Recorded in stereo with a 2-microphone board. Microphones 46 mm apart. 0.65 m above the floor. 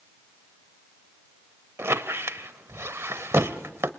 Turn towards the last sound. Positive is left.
turn(degrees=-75)  # may be behind; listen again after turning